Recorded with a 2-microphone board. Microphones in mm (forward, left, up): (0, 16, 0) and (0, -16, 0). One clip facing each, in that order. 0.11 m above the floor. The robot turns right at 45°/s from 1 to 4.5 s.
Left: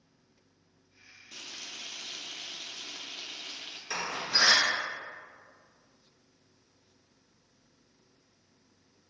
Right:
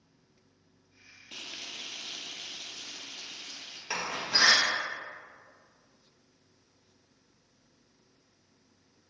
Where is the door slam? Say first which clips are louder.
Right 1 dB; 35° right (ahead or behind), 1.8 m; by 4.6 s 10° right (ahead or behind), 1.8 m.